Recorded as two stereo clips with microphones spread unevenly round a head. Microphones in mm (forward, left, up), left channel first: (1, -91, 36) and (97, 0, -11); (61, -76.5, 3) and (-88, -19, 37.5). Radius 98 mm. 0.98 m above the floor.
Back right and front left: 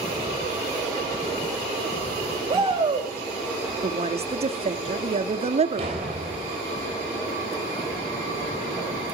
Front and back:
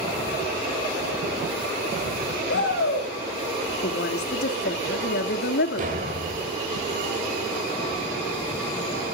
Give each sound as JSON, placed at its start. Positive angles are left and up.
{"t": 2.5, "sound": "a shout", "azimuth_deg": 0, "distance_m": 5.5}
{"t": 3.8, "sound": "a woman speaking", "azimuth_deg": 5, "distance_m": 1.7}
{"t": 5.8, "sound": "a door slam", "azimuth_deg": 105, "distance_m": 3.0}